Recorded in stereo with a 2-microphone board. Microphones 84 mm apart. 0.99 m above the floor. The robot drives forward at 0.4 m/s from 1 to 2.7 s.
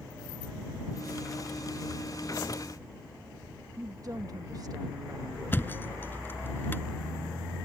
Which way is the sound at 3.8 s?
45° right (ahead or behind).